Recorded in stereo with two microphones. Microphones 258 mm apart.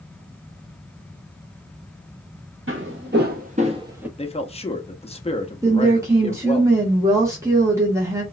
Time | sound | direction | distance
2.7 | footsteps | 50° right (ahead or behind) | 1.2 m
4.2 | a man speaking | 25° left (ahead or behind) | 0.5 m
5.6 | a woman speaking | 10° right (ahead or behind) | 0.8 m